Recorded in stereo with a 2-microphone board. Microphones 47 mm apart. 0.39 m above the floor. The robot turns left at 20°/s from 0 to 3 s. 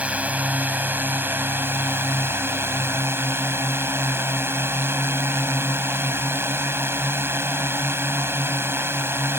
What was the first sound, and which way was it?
A drone, 35° right.